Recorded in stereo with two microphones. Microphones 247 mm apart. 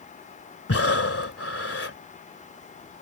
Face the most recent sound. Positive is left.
turn(degrees=60)  # may be behind; listen again after turning